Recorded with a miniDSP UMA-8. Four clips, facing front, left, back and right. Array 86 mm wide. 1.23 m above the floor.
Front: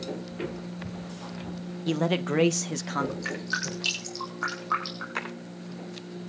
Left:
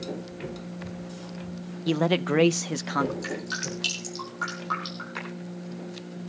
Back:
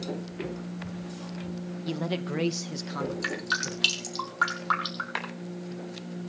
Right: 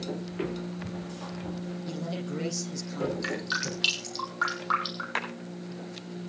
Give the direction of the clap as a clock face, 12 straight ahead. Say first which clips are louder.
Right 6 dB, front 1 dB; 4 o'clock.